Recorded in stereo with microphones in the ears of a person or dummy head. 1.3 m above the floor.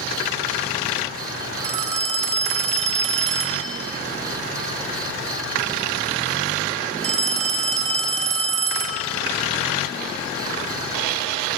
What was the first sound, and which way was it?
A phone ringing, 30° right (ahead or behind).